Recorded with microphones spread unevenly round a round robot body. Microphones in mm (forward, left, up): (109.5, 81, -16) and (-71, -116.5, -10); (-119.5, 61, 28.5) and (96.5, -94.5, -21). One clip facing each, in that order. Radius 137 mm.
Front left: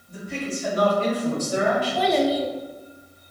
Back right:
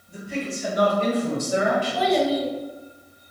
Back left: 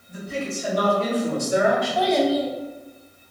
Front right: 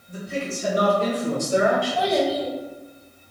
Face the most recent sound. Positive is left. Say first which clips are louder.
# even, back left 2 dB
turn(degrees=40)